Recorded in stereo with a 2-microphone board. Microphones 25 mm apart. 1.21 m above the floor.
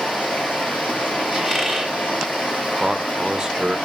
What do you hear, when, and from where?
0.0 s running water: 70° left (ahead or behind), 4.5 m
1.3 s a squeak: 10° left (ahead or behind), 2.5 m
2.8 s a man speaking: 15° right (ahead or behind), 0.9 m